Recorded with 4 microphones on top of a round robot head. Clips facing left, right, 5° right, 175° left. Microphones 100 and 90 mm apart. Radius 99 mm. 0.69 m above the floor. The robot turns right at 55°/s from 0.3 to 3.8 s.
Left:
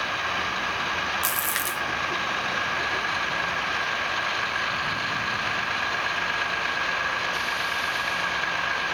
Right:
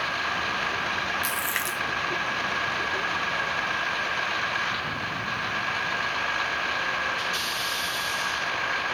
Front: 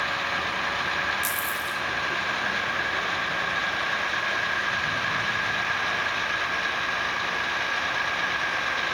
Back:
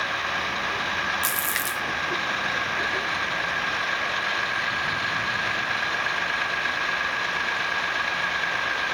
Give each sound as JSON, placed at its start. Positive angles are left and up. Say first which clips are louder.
{"t": 1.2, "sound": "a splash", "louder": "left 1 dB, back 1 dB", "azimuth_deg": 140, "distance_m": 0.9}